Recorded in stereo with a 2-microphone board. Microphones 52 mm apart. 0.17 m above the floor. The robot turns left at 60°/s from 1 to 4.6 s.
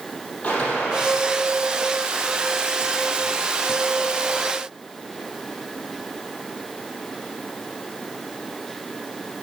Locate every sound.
0.4 s a gunshot: 25° left (ahead or behind), 5 m; by 1.2 s 10° left (ahead or behind), 5 m